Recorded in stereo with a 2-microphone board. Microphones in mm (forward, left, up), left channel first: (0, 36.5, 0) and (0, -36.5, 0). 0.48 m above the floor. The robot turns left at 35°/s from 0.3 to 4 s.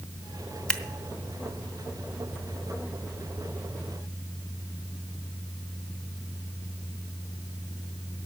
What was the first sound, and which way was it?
Scissors, 15° left (ahead or behind).